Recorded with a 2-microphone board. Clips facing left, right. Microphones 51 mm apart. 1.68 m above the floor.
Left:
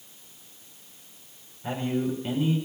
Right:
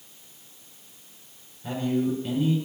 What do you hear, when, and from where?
1.6 s a man speaking: 25° left (ahead or behind), 6 m